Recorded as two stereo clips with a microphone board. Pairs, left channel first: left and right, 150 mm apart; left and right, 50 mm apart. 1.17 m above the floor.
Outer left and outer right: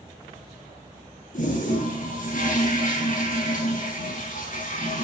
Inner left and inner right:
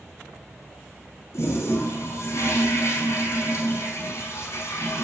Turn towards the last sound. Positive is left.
turn(degrees=60)  # may be behind; listen again after turning